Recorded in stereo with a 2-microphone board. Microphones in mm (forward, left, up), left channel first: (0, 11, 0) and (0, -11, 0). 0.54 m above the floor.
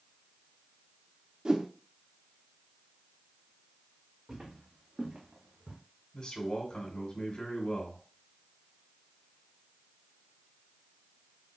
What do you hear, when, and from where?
1.4 s a whoosh: 40° right (ahead or behind), 0.7 m
4.3 s footsteps: 40° right (ahead or behind), 3 m; by 5.8 s 75° right (ahead or behind), 2 m
6.1 s a man speaking: 55° left (ahead or behind), 2 m